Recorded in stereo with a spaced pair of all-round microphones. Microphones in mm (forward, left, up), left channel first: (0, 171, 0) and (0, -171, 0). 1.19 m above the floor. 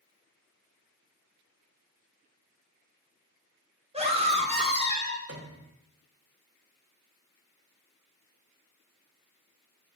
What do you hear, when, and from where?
3.9 s a scream: 20° right (ahead or behind), 3 m
5.3 s a piano: 45° right (ahead or behind), 1.4 m